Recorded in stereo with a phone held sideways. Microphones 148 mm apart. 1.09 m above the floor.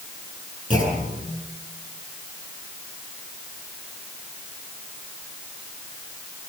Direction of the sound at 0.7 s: 60° left (ahead or behind).